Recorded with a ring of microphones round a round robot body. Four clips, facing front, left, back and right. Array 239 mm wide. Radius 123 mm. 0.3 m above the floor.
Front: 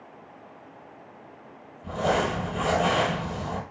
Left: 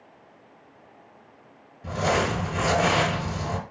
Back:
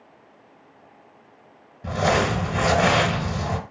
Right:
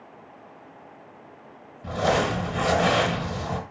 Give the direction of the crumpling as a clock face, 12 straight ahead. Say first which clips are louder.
Right 1 dB, back 3 dB; 6 o'clock.